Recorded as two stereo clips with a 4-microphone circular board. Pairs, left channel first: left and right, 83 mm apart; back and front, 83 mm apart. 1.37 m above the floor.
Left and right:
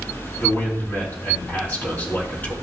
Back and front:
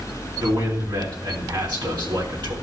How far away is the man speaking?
About 3 m.